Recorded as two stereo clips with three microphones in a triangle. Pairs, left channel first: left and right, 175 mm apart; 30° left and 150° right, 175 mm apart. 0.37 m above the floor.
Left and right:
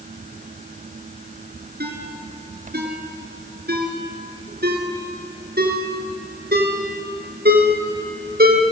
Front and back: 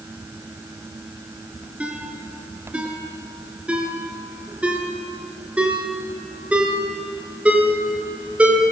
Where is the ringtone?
65° right, 3.5 m.